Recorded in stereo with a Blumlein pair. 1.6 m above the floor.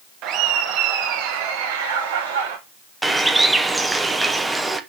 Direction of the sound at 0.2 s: 35° right.